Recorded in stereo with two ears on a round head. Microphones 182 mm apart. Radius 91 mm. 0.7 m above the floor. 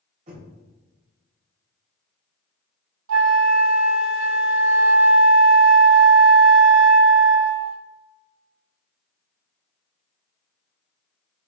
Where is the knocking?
40° right (ahead or behind), 3 m.